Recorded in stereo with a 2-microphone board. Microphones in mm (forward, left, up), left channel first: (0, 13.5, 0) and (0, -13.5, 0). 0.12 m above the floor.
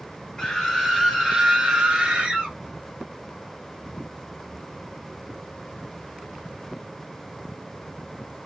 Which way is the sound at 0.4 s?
15° left (ahead or behind).